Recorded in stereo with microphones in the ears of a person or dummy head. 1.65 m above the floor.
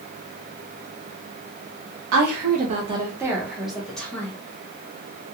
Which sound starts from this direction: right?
A woman speaking, at 2.1 s.